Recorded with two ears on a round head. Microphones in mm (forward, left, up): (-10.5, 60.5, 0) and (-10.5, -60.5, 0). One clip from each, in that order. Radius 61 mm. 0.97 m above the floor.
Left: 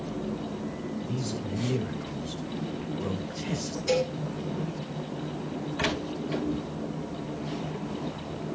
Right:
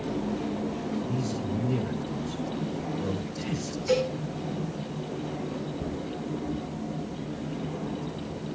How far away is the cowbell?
About 6.5 m.